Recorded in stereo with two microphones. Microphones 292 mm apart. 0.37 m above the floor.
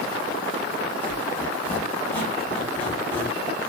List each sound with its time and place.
1.0 s a squeak: 5° left (ahead or behind), 1.0 m